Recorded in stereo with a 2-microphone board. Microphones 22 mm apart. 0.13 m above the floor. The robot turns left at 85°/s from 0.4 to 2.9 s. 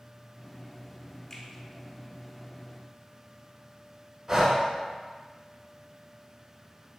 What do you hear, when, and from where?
1.3 s a finger snap: 20° left (ahead or behind), 1.0 m; by 1.4 s 15° left (ahead or behind), 1.0 m
4.3 s breathing: 25° right (ahead or behind), 0.7 m